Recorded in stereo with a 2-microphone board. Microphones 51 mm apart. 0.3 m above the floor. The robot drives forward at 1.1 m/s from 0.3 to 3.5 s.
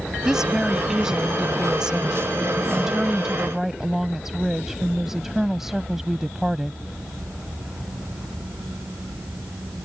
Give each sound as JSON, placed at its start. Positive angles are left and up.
{"t": 0.2, "sound": "a woman speaking", "side_deg": -10}